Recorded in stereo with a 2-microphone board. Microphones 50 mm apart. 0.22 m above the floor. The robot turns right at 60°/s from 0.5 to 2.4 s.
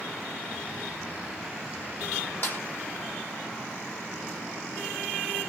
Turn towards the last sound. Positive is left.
turn(degrees=40)  # may be behind; listen again after turning